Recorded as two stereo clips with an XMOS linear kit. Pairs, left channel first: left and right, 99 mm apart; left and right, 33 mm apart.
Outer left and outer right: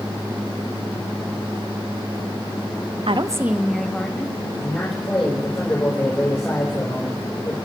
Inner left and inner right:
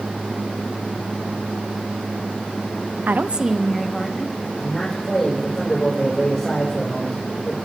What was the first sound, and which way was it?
A woman speaking, 65° right (ahead or behind).